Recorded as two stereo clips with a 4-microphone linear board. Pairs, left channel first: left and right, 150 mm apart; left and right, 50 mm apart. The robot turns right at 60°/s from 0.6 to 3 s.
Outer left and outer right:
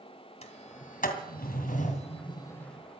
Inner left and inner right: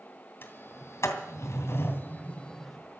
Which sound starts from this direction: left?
A sliding door, at 0.4 s.